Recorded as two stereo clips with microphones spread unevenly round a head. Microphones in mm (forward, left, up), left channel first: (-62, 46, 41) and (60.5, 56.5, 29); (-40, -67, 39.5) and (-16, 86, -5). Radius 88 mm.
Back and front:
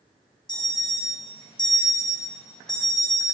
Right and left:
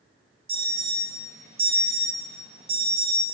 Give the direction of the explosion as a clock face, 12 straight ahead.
No explosion in this recording.